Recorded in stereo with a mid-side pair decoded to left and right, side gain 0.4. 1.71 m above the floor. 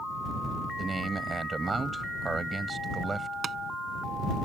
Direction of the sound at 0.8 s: 30° right.